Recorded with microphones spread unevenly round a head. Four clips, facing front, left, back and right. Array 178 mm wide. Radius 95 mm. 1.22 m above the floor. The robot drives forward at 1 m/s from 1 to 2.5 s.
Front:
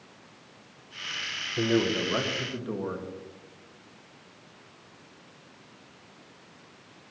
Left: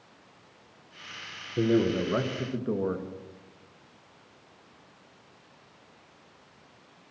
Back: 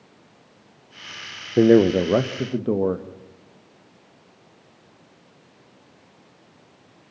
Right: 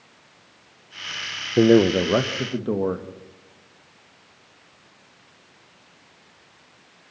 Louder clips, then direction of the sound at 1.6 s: Right 9 dB, back 11 dB; 135° right.